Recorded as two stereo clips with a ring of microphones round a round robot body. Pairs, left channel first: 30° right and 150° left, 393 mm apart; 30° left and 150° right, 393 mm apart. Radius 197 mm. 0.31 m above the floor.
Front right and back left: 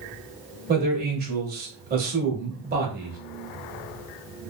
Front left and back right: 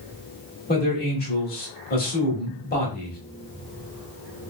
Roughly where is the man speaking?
Left.